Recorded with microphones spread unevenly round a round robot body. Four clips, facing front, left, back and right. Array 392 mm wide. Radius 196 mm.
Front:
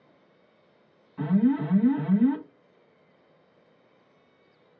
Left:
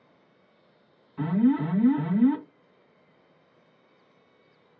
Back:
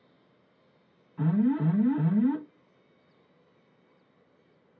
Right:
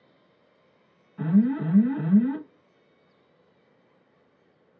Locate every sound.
1.2 s an alarm: 85° left, 2.5 m